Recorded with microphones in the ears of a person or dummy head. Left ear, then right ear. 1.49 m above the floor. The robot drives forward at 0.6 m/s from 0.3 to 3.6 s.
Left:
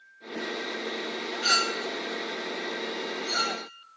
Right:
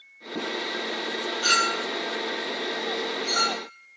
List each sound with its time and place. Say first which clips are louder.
1.4 s a clink: right 2 dB; centre (ahead or behind), 1.0 m